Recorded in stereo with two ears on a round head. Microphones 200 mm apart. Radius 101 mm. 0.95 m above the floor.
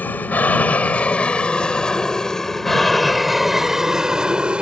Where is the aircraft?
10° left (ahead or behind); by 4.6 s 5° right (ahead or behind).